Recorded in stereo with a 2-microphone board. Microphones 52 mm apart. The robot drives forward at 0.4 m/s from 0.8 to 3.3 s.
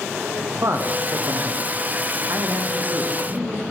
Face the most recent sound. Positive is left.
turn(degrees=-35)  # may be behind; listen again after turning